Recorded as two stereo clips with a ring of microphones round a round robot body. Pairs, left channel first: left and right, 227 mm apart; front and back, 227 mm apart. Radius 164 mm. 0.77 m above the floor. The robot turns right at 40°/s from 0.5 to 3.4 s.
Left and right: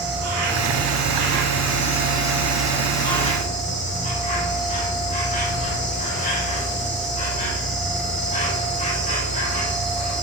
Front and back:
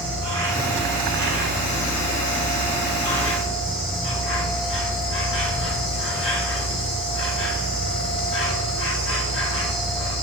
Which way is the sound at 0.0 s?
85° right.